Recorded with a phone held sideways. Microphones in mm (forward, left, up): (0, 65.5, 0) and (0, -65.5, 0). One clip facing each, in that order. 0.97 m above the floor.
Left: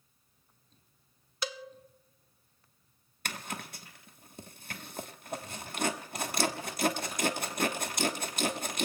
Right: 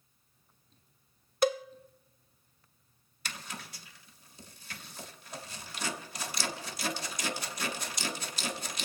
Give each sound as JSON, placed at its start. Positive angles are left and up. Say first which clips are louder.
{"t": 1.4, "sound": "a cowbell", "louder": "right 12 dB", "side_deg": -50, "distance_m": 0.5}
{"t": 3.2, "sound": "a zipper", "louder": "left 4 dB", "side_deg": 55, "distance_m": 1.2}